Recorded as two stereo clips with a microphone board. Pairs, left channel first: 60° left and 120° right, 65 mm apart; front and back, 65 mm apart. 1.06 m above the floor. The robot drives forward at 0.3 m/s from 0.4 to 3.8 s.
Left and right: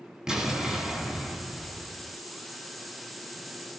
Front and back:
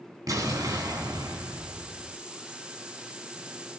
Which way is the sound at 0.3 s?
160° left.